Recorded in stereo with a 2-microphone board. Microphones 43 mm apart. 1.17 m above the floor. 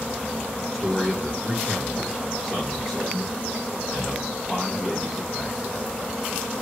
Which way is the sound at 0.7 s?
5° right (ahead or behind).